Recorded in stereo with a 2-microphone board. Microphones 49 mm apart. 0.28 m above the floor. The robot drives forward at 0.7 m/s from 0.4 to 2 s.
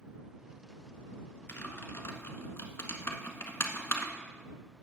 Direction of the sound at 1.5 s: 45° left (ahead or behind).